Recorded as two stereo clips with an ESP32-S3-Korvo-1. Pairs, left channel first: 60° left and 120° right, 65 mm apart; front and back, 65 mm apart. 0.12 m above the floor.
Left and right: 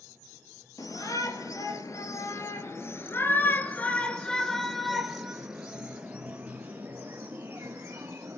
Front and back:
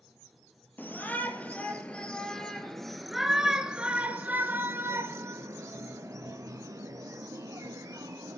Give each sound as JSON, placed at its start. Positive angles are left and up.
{"t": 0.8, "sound": "a shout", "azimuth_deg": 55, "distance_m": 3.5}